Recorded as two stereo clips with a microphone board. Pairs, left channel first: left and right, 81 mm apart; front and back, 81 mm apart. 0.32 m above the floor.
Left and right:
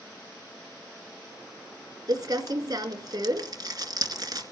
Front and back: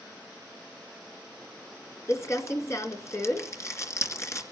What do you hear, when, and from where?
2.1 s crumpling: 50° right, 2 m